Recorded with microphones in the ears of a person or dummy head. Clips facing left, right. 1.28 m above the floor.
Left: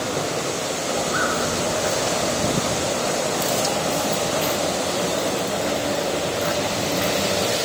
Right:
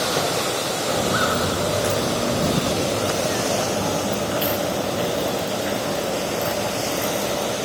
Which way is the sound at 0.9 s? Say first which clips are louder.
Right 3 dB; 50° right (ahead or behind).